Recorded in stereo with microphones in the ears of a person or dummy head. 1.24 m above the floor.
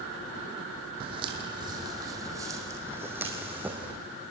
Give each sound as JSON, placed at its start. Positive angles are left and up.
{"t": 1.0, "sound": "footsteps", "side_deg": -30, "distance_m": 3.0}